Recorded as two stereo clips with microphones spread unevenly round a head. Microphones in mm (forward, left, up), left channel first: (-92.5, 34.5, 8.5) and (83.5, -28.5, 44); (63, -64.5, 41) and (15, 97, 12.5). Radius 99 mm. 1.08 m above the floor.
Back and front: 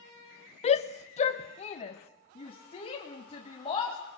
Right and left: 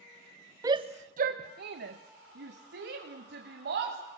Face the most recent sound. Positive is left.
turn(degrees=100)